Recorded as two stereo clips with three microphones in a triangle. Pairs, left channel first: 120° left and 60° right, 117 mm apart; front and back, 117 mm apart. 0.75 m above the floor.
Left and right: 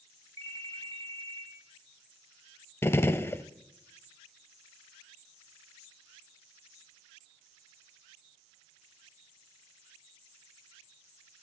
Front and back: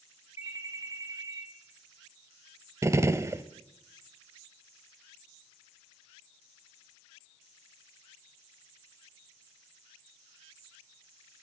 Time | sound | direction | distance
0.4 | a ringtone | 30° right | 2.5 m
2.8 | a gunshot | 155° left | 0.6 m